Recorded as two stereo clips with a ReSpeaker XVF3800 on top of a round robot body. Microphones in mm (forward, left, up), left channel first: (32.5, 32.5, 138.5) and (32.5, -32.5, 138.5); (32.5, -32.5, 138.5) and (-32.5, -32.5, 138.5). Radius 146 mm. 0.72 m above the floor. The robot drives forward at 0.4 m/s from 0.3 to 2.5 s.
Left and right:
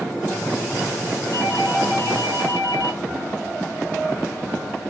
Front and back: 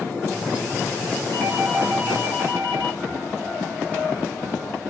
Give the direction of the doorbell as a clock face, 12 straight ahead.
8 o'clock.